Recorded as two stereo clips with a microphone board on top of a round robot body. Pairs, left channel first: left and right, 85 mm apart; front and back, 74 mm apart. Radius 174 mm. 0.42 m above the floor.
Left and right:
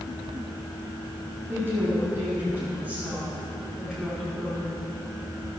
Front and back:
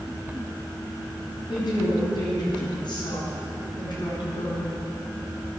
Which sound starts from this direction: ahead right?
A woman speaking, at 1.5 s.